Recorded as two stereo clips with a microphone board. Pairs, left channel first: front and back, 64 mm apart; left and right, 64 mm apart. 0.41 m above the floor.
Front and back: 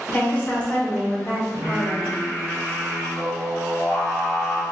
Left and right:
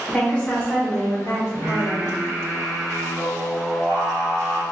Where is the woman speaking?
30° left, 1.1 m; by 2.1 s 110° left, 1.5 m.